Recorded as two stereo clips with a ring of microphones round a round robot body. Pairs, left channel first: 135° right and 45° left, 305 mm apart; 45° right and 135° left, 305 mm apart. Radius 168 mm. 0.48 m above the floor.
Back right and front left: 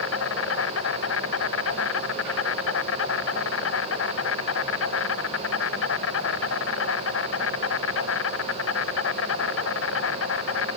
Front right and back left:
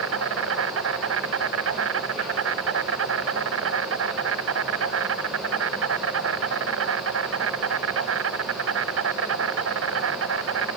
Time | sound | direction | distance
0.0 | an insect | straight behind | ?